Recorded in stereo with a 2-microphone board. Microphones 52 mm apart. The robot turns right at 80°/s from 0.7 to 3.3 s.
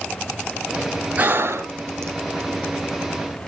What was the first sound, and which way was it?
Breathing, 25° right (ahead or behind).